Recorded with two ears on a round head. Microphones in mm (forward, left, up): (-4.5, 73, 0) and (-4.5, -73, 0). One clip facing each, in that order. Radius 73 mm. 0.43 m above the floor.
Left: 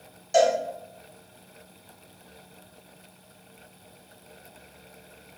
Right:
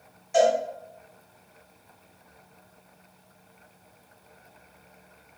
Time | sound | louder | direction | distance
0.3 | a cowbell | even | 40° left (ahead or behind) | 2.0 m